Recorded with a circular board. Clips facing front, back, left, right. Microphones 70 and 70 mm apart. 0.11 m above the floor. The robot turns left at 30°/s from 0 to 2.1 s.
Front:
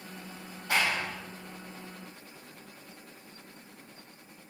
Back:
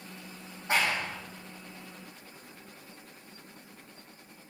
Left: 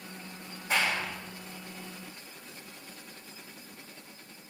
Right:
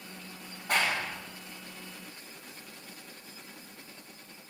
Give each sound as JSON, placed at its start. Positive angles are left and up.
{"t": 0.7, "sound": "a clap", "azimuth_deg": -120, "distance_m": 5.0}